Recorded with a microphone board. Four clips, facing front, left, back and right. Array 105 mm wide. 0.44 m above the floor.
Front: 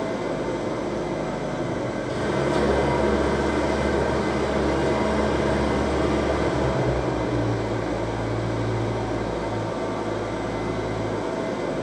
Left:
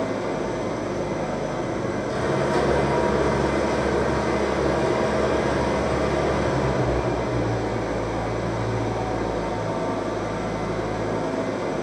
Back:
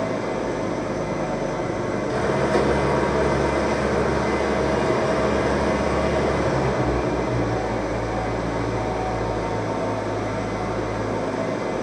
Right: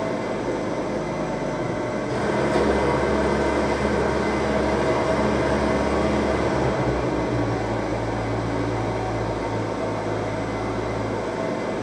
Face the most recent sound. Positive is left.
turn(degrees=170)